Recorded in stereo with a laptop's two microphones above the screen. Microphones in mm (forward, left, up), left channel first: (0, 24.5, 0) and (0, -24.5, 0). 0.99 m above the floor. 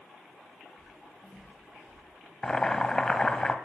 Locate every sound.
0.8 s footsteps: 5° right (ahead or behind), 5.5 m; by 2.0 s 15° right (ahead or behind), 6.5 m
2.4 s boiling: 15° left (ahead or behind), 1.2 m